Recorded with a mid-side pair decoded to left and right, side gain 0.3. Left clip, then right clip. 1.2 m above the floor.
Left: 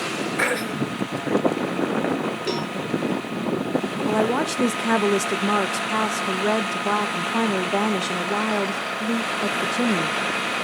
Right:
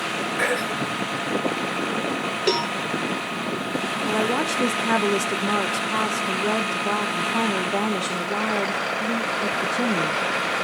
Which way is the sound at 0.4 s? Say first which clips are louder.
Even; 55° left.